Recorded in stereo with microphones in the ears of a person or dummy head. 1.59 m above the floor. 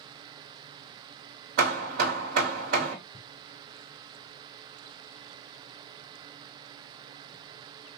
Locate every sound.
1.6 s hammering: 55° right (ahead or behind), 1.2 m